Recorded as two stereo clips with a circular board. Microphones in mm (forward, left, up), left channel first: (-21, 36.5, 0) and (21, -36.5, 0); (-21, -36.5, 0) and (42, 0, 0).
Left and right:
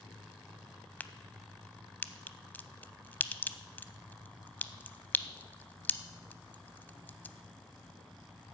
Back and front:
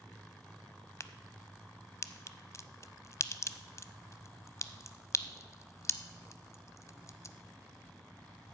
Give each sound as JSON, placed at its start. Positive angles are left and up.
{"t": 1.0, "sound": "a crack", "azimuth_deg": -175, "distance_m": 0.5}